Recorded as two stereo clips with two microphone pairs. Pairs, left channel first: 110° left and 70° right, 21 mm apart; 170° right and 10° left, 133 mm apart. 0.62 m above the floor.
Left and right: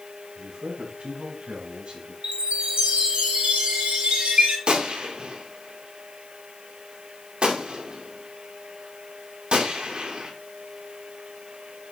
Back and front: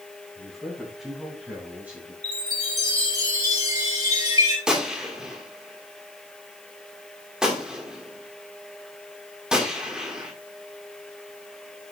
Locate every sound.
0.3 s a man speaking: 80° right, 4.5 m; by 2.1 s 65° right, 3 m
2.2 s a chime: 50° right, 5.5 m
4.7 s a gunshot: 75° right, 2 m